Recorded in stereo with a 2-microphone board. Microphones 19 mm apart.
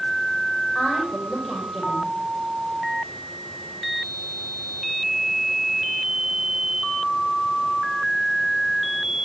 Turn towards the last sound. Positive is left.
turn(degrees=5)  # may be behind; listen again after turning